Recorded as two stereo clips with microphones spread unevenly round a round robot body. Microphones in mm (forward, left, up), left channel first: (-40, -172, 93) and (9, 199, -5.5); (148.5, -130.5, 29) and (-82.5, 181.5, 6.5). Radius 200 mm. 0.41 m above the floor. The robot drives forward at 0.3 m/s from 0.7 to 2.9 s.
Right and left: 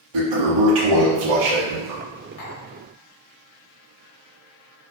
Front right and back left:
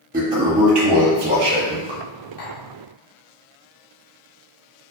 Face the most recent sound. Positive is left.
turn(degrees=-110)